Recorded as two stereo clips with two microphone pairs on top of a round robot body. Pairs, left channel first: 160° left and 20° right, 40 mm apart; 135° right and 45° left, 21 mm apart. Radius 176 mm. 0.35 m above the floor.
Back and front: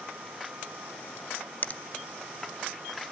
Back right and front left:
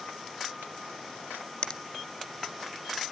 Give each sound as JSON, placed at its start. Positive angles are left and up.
{"t": 1.6, "sound": "a finger snap", "azimuth_deg": -175, "distance_m": 0.8}